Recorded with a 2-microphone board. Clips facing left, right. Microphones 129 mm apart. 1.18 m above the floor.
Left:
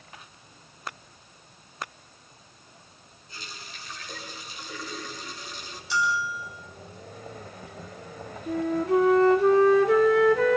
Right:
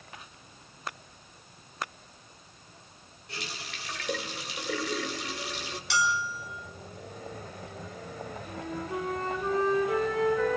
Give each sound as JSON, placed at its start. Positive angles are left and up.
{"t": 3.3, "sound": "a running tap", "side_deg": -80, "distance_m": 3.5}
{"t": 5.9, "sound": "a bell", "side_deg": -75, "distance_m": 6.0}
{"t": 8.5, "sound": "a flute", "side_deg": 80, "distance_m": 1.9}